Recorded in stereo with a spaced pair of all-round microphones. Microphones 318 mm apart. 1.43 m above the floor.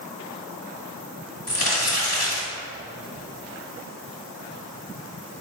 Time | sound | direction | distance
1.5 | crumpling | 50° left (ahead or behind) | 1.9 m